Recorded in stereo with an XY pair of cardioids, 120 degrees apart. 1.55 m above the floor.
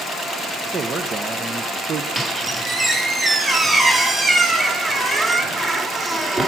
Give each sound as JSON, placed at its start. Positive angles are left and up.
{"t": 0.7, "sound": "a man speaking", "azimuth_deg": -30, "distance_m": 1.1}
{"t": 2.1, "sound": "a squeak", "azimuth_deg": -20, "distance_m": 4.0}